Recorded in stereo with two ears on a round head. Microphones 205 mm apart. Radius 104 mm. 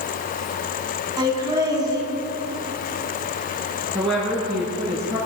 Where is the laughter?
20° right (ahead or behind), 4.5 m.